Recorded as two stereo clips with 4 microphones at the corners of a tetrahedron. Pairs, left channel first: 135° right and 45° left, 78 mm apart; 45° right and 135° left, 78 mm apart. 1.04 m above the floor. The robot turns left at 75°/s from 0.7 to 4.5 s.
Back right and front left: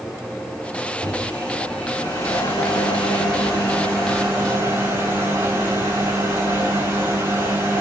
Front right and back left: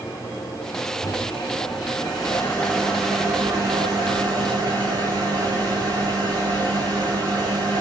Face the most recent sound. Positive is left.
turn(degrees=105)